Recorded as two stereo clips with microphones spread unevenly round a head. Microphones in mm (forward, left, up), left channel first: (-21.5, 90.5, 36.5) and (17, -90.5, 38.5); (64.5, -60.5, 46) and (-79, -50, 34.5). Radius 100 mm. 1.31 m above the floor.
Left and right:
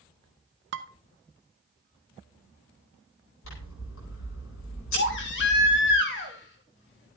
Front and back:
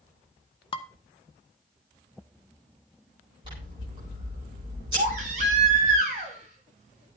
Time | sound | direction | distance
0.7 | dishes clattering | 50° right | 0.9 m
3.4 | scissors | 110° left | 9.5 m
5.0 | a baby crying | 130° left | 2 m